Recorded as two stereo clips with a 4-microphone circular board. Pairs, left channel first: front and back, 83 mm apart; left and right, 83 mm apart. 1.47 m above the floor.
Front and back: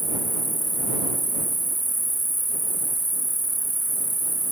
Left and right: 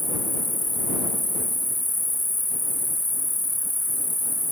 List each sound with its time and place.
0.0 s an insect: 45° left